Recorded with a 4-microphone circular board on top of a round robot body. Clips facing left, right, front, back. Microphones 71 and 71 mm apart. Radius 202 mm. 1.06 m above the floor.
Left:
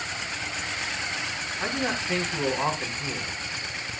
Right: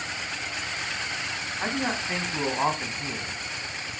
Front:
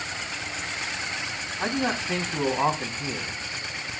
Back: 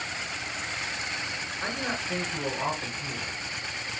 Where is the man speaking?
20° right, 3 m.